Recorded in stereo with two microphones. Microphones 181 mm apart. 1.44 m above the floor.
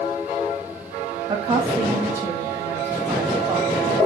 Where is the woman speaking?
20° right (ahead or behind), 1.7 m; by 4.0 s 10° right (ahead or behind), 3 m.